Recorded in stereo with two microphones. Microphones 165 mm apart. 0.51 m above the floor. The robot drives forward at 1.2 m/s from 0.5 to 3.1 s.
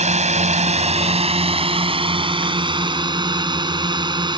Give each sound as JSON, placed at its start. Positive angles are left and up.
{"t": 0.0, "sound": "a drone", "side_deg": -45}